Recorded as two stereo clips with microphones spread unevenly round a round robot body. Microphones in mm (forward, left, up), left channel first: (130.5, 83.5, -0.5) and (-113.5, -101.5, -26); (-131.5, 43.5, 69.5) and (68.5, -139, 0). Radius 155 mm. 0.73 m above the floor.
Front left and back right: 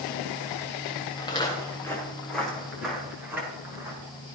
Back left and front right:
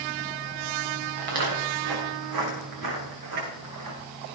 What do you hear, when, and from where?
1.2 s footsteps: 40° right, 5.5 m; by 4.0 s 60° right, 8 m